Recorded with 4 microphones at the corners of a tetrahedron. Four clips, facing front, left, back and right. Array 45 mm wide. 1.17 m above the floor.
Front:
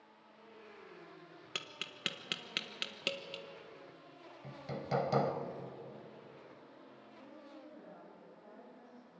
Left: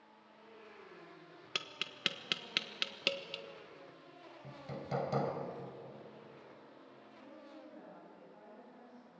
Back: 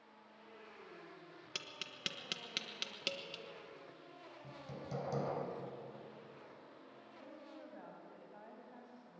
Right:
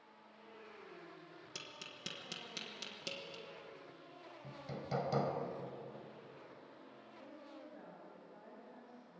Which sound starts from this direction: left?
Tapping, at 1.6 s.